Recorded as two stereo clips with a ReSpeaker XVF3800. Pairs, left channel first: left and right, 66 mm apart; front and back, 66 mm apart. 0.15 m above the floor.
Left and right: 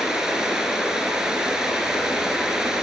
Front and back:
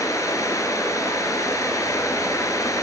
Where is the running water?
10° right, 1.5 m.